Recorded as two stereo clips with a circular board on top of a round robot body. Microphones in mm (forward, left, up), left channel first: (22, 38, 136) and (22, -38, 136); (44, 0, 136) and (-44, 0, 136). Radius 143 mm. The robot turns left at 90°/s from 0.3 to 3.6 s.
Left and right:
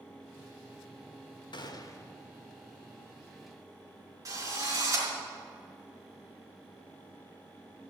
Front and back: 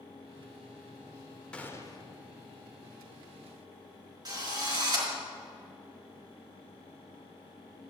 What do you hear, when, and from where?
1.5 s a gunshot: 80° left, 1.4 m; by 2.1 s 25° left, 1.4 m
4.2 s a drill: 140° right, 4.5 m